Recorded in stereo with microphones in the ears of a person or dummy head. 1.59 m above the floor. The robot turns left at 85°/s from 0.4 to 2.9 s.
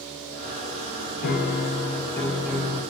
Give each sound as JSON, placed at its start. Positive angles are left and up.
{"t": 1.2, "sound": "a piano", "azimuth_deg": 105, "distance_m": 0.5}